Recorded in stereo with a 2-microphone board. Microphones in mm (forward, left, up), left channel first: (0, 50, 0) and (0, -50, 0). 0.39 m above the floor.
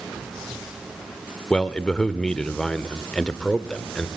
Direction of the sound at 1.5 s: 10° left (ahead or behind).